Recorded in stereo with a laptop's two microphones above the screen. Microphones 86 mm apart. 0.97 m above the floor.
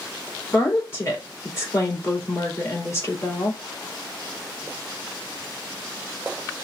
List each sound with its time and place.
0.5 s a woman speaking: 35° left (ahead or behind), 2 m